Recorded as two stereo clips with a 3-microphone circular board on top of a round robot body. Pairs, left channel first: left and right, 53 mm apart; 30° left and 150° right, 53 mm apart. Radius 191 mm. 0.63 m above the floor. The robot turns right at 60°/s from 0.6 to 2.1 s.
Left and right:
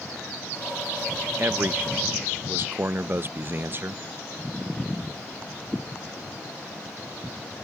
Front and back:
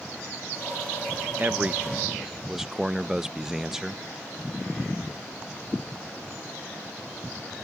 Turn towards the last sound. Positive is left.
turn(degrees=-70)